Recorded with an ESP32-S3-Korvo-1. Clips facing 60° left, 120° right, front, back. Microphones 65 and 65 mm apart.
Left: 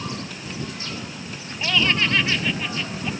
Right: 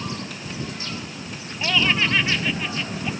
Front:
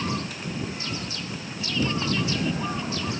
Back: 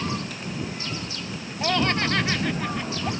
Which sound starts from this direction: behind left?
Laughter, at 1.6 s.